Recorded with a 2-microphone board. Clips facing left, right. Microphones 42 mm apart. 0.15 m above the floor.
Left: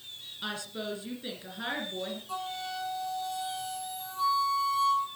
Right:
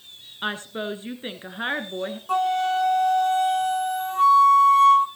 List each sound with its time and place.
0.4 s a woman speaking: 45° right (ahead or behind), 1.5 m
2.3 s a flute: 55° right (ahead or behind), 0.8 m